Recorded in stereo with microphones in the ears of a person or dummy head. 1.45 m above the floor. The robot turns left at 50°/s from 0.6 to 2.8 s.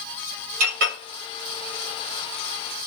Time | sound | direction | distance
0.6 | a clink | 40° right (ahead or behind) | 1.0 m